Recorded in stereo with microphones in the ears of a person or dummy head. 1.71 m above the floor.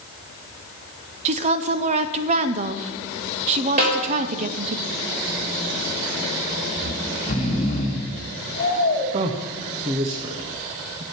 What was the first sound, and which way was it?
A woman speaking, 40° right (ahead or behind).